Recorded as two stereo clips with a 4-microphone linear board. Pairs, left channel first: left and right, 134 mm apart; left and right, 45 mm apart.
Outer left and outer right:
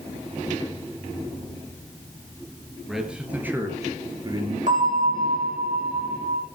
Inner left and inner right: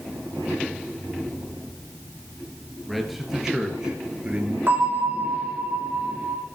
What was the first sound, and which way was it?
A man speaking, 5° right (ahead or behind).